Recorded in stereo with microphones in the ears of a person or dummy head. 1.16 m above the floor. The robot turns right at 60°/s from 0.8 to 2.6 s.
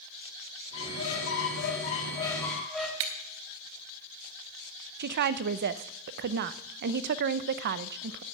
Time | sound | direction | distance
0.7 | a squeak | 70° left | 2.0 m
3.0 | breaking glass | 65° right (ahead or behind) | 1.1 m
5.0 | a woman speaking | 55° right (ahead or behind) | 0.6 m